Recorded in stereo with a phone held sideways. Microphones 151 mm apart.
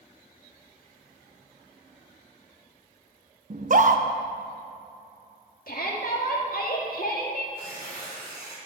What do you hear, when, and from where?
3.5 s a scream: 55° right (ahead or behind), 0.8 m
5.7 s a shout: 70° left (ahead or behind), 1.8 m
7.5 s tearing paper: 80° right, 3.5 m